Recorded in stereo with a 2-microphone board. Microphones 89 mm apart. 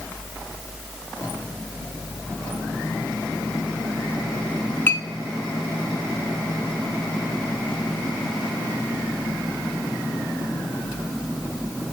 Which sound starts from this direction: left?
A clink, at 4.9 s.